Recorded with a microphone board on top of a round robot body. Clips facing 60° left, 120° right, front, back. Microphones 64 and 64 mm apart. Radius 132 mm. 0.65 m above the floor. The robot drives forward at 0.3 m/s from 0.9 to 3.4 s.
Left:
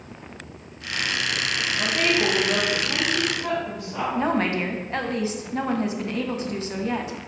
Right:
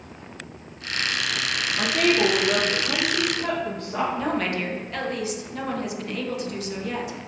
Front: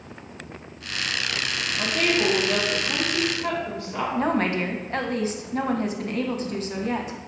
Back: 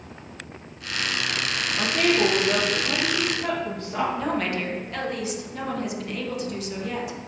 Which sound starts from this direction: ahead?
A woman speaking, at 4.2 s.